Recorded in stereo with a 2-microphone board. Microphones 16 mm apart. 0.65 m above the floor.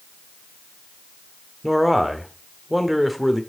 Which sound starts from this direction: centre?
A man speaking, at 1.6 s.